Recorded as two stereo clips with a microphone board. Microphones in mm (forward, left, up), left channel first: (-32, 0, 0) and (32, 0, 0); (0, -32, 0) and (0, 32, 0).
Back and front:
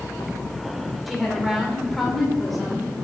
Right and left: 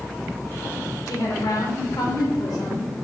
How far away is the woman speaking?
About 2.5 m.